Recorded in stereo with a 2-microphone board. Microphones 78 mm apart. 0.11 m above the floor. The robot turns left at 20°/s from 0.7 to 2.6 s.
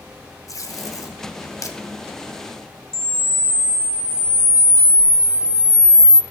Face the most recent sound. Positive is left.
turn(degrees=10)  # may be behind; listen again after turning